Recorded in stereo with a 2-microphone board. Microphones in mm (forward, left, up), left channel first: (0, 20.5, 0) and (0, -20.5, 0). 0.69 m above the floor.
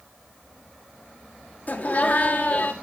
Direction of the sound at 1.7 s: 40° left (ahead or behind).